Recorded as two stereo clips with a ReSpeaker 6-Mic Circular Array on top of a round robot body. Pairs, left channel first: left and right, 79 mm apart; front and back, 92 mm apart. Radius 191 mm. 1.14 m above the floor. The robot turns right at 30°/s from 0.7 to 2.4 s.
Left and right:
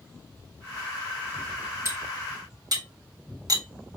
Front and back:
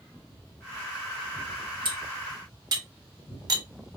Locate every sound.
1.9 s cutlery clinking: 145° right, 1.3 m; by 3.6 s 130° right, 1.3 m